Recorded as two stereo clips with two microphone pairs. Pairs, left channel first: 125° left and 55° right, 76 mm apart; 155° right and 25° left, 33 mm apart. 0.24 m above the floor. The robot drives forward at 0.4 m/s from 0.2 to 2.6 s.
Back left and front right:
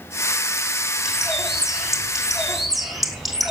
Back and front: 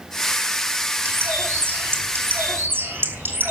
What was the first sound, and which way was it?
A bird, 30° left.